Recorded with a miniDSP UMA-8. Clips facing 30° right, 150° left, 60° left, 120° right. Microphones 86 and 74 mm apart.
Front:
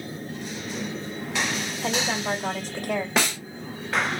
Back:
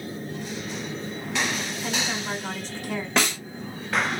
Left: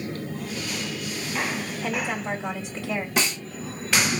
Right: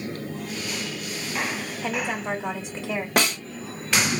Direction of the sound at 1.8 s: 50° right.